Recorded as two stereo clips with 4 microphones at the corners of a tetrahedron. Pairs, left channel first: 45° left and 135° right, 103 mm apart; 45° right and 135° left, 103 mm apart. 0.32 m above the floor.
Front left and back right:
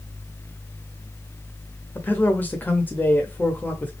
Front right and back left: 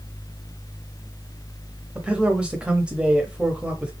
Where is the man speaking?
70° left, 0.8 m.